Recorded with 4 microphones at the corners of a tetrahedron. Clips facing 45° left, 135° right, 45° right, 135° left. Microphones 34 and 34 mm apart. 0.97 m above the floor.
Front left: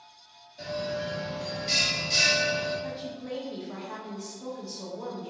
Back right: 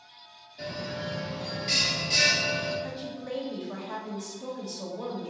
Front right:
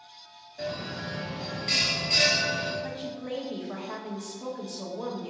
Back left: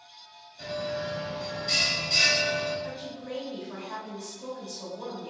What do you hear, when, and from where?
0.6 s a bell: 40° right, 1.4 m
2.8 s a woman speaking: 30° right, 1.2 m